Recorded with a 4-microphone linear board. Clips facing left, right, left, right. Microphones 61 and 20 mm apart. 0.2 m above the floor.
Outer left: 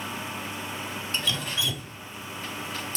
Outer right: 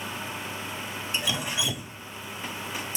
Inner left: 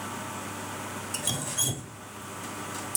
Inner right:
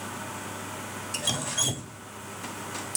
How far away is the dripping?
About 0.5 m.